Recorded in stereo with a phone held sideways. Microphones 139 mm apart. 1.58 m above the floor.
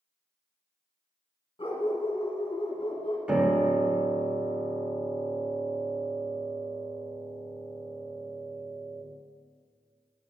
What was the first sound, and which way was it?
A dog barking, 35° left (ahead or behind).